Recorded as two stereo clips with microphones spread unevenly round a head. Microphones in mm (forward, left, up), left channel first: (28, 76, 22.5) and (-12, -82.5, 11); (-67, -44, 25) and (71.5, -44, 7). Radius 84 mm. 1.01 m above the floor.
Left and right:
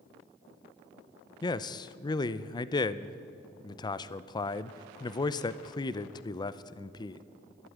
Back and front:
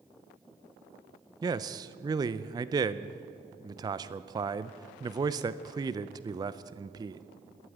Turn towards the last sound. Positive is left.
turn(degrees=20)